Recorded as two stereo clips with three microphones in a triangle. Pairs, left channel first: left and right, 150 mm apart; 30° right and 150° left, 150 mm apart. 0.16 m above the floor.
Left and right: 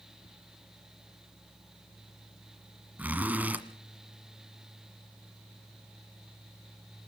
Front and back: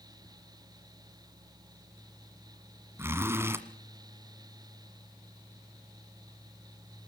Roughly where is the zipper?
Behind right.